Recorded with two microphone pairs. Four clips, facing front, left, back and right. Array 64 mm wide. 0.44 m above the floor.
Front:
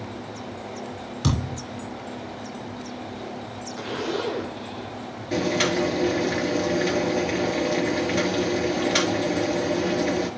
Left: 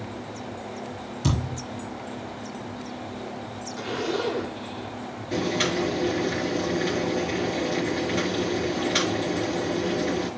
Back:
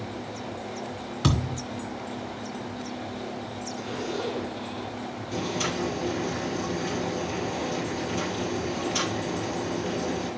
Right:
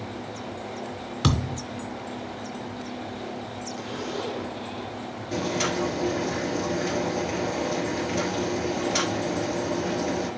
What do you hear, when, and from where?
1.2 s a thud: 115° right, 2.5 m
3.8 s a zipper: 50° left, 1.8 m
5.3 s boiling: 15° left, 3.5 m